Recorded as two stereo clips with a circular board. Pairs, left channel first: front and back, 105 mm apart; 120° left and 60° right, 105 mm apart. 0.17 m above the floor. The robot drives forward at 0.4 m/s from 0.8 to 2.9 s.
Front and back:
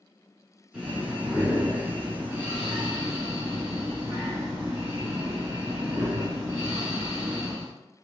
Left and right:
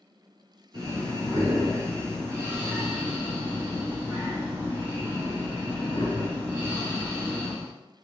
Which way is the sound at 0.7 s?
95° right.